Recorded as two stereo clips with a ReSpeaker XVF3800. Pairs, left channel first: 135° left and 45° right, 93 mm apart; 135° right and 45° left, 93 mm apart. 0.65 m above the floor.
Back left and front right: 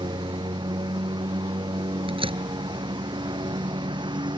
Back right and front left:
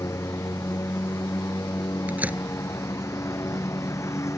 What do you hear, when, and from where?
0.0 s a lawn mower: 80° right
2.1 s a door slam: 30° right